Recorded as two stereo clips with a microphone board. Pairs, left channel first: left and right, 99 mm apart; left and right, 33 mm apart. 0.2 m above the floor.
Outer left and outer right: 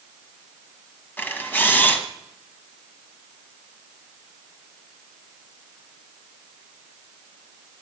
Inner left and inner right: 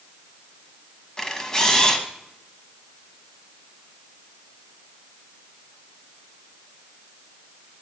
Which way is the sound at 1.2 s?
20° left (ahead or behind).